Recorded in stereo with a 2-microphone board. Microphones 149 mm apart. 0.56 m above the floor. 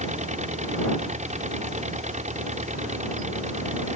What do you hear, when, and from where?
0.0 s an engine running: 50° right (ahead or behind)